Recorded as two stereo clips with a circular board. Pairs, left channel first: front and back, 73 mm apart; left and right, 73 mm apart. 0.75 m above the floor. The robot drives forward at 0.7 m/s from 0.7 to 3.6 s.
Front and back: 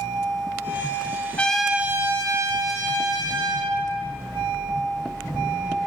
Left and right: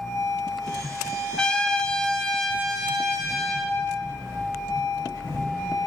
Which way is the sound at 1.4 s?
30° left.